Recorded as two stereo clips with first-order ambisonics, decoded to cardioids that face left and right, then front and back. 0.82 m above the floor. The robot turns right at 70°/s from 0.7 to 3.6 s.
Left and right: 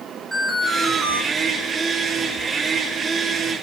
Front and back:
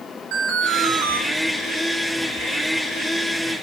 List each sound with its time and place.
0.3 s an alarm: 170° right, 4.5 m; by 1.2 s 135° right, 4.5 m